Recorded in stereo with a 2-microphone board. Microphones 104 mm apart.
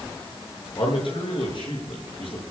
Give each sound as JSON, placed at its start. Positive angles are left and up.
{"t": 0.8, "sound": "a man speaking", "side_deg": 60, "distance_m": 7.0}